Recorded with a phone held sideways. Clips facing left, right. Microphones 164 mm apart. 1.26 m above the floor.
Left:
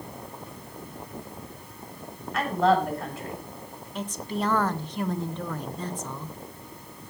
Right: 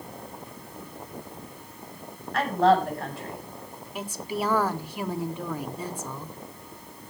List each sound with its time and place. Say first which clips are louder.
2.3 s a woman speaking: right 2 dB; centre (ahead or behind), 7.5 m
4.0 s a woman speaking: even; 10° right (ahead or behind), 1.1 m